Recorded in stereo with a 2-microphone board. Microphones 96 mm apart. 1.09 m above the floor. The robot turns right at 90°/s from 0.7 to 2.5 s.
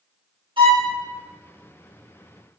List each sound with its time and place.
0.6 s a violin: 65° right (ahead or behind), 1.6 m; by 0.9 s 50° right (ahead or behind), 1.6 m